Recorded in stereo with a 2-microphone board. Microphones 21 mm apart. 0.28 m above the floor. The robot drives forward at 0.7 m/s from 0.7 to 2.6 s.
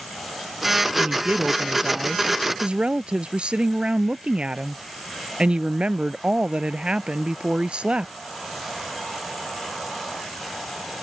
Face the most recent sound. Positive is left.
turn(degrees=-70)  # may be behind; listen again after turning